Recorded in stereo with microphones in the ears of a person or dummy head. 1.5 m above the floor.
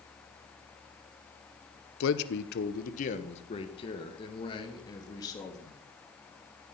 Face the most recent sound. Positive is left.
turn(degrees=20)  # may be behind; listen again after turning